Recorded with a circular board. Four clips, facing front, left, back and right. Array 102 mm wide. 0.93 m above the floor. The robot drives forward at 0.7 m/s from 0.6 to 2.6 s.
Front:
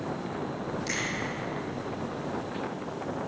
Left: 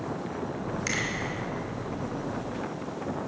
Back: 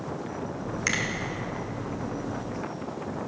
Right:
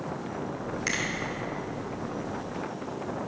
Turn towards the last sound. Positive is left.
turn(degrees=-175)